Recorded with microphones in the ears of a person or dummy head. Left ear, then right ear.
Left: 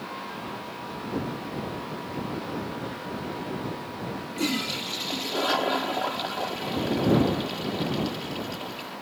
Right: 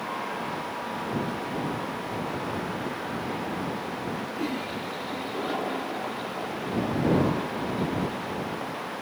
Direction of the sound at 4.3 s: 50° left (ahead or behind).